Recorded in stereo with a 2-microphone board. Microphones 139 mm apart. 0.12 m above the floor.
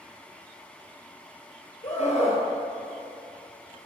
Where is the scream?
55° left (ahead or behind), 2.5 m.